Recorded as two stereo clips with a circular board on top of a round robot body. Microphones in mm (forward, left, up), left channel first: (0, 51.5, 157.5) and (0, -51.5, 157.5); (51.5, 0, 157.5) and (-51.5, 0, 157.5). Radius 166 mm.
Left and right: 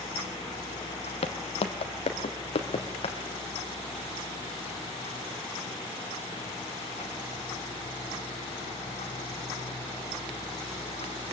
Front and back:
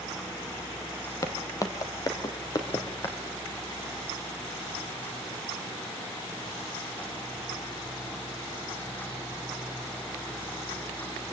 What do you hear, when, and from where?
1.2 s footsteps: 60° left, 1.2 m; by 3.2 s 55° left, 2.5 m